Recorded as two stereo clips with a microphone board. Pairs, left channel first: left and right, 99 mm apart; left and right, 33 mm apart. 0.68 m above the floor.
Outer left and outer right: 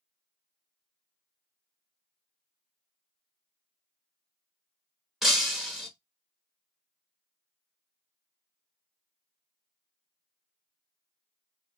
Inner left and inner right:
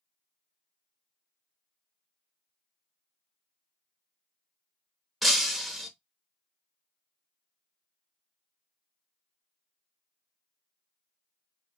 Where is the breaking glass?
5° right (ahead or behind), 1.1 m.